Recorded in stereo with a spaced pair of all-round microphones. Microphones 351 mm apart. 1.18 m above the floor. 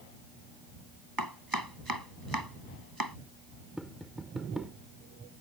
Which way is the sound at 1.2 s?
80° right.